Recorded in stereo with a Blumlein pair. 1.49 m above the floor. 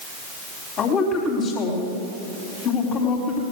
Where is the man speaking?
30° left, 4 m.